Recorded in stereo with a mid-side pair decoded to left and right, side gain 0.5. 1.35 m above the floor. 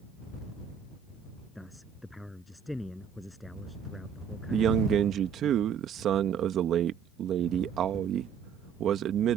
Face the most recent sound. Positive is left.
turn(degrees=-65)